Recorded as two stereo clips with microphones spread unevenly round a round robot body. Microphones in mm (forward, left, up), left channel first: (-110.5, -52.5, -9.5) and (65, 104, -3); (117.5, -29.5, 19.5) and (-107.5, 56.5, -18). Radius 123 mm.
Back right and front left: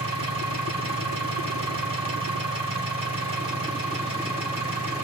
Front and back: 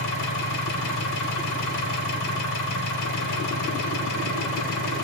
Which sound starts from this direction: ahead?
An engine running, at 0.0 s.